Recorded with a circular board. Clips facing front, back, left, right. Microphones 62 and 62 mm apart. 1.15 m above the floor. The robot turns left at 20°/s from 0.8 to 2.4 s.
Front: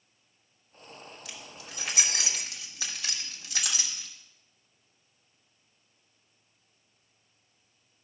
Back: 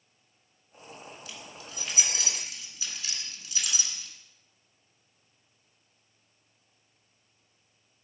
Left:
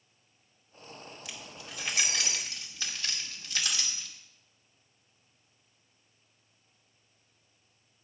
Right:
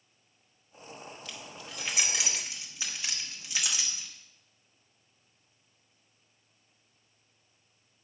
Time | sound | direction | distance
1.2 | keys jangling | 10° left | 1.6 m